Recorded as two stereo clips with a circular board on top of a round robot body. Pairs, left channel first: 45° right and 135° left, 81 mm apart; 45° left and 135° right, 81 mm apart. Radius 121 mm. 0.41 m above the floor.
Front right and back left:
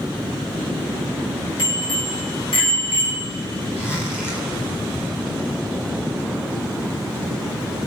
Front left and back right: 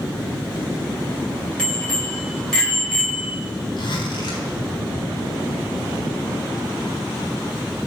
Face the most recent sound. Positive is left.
turn(degrees=20)